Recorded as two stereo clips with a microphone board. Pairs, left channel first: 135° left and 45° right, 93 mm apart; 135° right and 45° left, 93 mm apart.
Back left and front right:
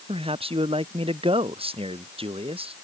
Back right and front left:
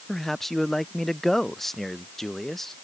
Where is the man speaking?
50° right.